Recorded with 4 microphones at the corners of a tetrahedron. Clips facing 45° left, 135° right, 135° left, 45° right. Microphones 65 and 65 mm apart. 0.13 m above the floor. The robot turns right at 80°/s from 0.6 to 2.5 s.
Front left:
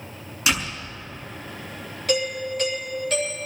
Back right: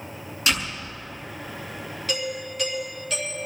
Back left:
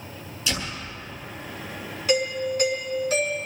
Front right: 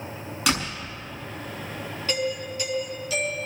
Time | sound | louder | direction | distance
0.5 | a door slam | front left 1 dB, front right 4 dB | 40° right | 6 m
2.1 | a doorbell | front left 6 dB, back left 5 dB | 55° left | 6 m